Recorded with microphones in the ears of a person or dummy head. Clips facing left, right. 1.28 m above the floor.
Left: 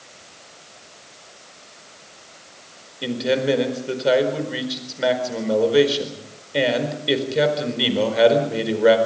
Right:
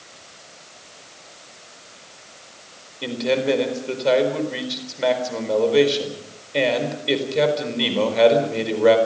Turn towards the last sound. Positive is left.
turn(degrees=5)  # may be behind; listen again after turning